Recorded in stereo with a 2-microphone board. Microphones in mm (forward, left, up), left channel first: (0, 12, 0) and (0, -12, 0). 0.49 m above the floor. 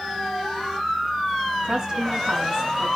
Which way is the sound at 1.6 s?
30° right (ahead or behind).